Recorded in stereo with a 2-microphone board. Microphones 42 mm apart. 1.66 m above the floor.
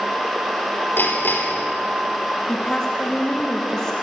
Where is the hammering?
55° left (ahead or behind), 3.5 m.